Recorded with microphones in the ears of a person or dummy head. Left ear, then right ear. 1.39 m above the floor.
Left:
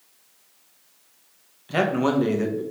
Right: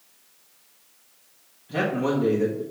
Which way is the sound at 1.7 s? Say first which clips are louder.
Left 3 dB; 80° left.